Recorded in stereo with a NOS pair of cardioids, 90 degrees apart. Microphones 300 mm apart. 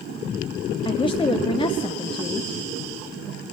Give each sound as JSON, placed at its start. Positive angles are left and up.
{"t": 0.8, "sound": "a woman speaking", "azimuth_deg": 15, "distance_m": 0.6}